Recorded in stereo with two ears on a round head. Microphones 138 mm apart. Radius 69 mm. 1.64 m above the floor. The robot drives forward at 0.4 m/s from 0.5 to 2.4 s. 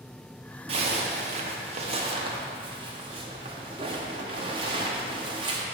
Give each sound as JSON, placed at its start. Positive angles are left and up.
{"t": 0.7, "sound": "a zipper", "side_deg": -35, "distance_m": 0.7}